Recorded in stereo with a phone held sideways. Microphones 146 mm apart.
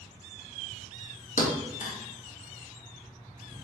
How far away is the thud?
About 0.9 m.